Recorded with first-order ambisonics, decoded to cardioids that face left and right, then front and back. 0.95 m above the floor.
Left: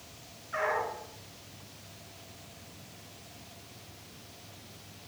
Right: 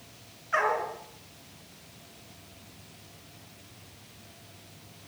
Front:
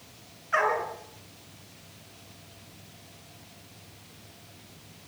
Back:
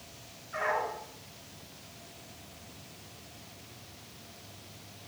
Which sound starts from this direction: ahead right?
A dog barking, at 0.5 s.